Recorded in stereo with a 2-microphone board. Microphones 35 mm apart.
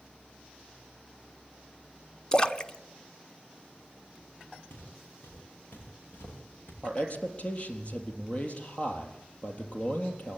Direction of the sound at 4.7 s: 85° left.